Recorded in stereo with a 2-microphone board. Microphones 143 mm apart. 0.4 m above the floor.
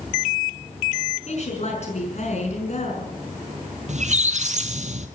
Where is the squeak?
60° right (ahead or behind), 1.0 m.